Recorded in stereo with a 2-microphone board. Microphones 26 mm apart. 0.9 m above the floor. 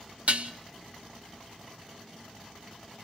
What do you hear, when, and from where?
0.3 s dishes clattering: 60° right (ahead or behind), 1.0 m